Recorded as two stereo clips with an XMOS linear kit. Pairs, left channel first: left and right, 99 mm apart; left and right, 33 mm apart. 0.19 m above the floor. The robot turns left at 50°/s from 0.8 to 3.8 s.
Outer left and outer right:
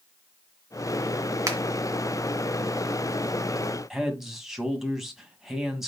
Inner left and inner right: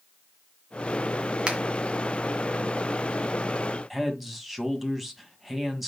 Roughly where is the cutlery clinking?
No cutlery clinking in this recording.